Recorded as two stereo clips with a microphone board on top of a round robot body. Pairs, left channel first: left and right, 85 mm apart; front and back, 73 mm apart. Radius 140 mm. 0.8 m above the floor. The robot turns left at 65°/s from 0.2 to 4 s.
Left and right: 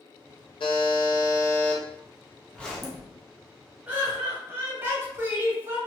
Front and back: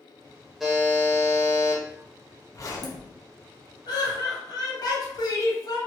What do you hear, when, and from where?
0.6 s a buzzer: 95° left, 1.1 m; by 1.8 s 15° left, 1.1 m
2.5 s a zipper: 20° left, 1.1 m; by 3.1 s 15° right, 1.1 m
3.9 s laughter: 15° right, 1.8 m; by 5.8 s 25° right, 1.8 m